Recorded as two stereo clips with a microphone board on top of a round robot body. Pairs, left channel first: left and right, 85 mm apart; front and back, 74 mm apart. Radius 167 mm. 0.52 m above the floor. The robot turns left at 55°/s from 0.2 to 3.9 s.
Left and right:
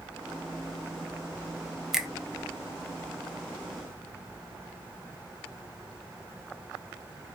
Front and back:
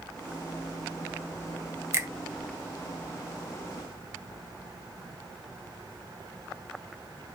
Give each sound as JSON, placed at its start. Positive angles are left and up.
{"t": 1.9, "sound": "a finger snap", "azimuth_deg": -175, "distance_m": 0.7}